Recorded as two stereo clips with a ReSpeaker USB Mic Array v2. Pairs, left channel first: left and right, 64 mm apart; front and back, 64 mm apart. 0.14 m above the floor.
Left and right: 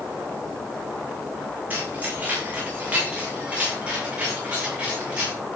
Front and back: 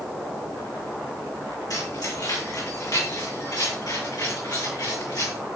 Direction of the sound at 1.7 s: 25° right.